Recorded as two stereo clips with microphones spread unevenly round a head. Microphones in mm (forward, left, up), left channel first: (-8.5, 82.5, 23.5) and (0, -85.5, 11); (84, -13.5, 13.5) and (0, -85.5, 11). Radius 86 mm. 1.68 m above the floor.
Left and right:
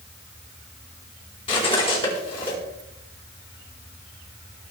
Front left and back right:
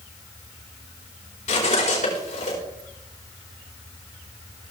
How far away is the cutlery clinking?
About 4 m.